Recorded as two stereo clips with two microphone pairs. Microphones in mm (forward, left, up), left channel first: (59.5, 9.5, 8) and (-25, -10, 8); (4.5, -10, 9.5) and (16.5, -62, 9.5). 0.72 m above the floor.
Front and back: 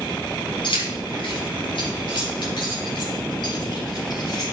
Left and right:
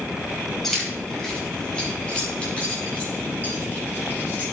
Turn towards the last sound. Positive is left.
turn(degrees=50)